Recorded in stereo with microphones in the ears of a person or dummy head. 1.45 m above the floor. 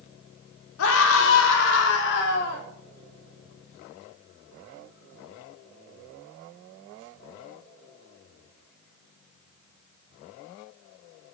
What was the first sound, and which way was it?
A scream, 75° left (ahead or behind).